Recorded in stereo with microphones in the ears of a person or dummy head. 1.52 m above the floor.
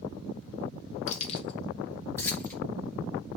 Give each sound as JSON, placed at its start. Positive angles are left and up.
{"t": 1.1, "sound": "keys jangling", "side_deg": 40, "distance_m": 1.7}